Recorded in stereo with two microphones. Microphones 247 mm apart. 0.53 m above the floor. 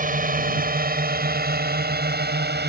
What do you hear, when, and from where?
0.0 s a drone: 35° right (ahead or behind); by 2.7 s 45° right (ahead or behind)